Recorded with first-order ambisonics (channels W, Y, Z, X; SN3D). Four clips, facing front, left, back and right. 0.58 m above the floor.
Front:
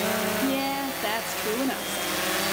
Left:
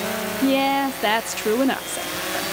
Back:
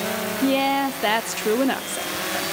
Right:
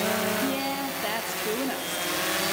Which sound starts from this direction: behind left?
A woman speaking, at 0.4 s.